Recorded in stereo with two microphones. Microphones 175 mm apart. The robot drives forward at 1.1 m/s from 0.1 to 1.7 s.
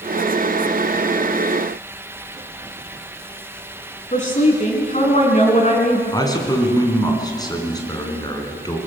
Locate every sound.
4.1 s a woman speaking: 45° left (ahead or behind), 2.5 m
6.1 s a man speaking: 20° left (ahead or behind), 3.5 m